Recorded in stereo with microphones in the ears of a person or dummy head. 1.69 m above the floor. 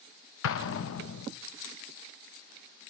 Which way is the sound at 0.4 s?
75° left (ahead or behind).